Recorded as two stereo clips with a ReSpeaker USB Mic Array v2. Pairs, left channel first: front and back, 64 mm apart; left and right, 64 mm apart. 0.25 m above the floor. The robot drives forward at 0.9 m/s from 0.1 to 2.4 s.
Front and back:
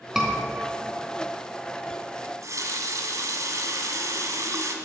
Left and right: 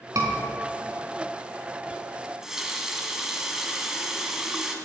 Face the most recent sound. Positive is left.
turn(degrees=-170)